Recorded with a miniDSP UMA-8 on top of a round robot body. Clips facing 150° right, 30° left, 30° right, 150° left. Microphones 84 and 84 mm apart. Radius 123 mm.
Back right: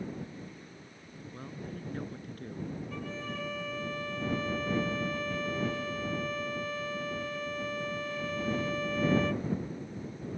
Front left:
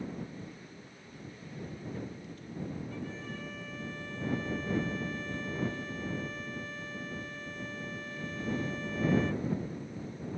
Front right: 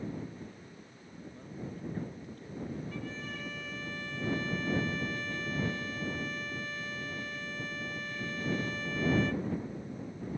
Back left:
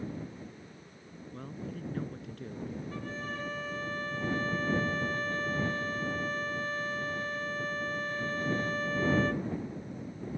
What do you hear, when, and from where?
1.3 s a man speaking: 165° left
2.9 s a violin: 155° right